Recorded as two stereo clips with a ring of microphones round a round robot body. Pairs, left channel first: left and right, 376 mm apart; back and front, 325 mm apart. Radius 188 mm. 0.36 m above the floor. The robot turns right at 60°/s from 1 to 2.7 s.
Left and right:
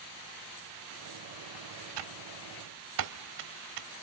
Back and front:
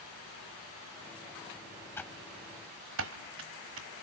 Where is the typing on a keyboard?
95° right, 1.1 m; by 3.9 s 55° right, 1.1 m.